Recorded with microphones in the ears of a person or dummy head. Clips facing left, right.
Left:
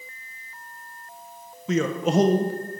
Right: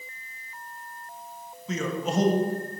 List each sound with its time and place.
1.7 s a man speaking: 45° left (ahead or behind), 0.5 m